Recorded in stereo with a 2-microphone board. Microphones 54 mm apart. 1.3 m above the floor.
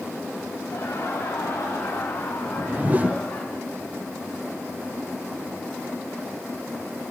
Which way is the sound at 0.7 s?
80° left.